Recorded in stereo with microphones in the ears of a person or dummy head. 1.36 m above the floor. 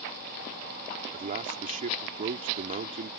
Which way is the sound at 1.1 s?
40° right (ahead or behind).